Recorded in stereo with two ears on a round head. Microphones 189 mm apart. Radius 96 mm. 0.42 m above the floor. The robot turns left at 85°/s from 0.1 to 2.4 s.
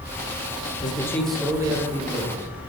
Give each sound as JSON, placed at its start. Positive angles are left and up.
{"t": 0.8, "sound": "a man speaking", "azimuth_deg": 45, "distance_m": 1.3}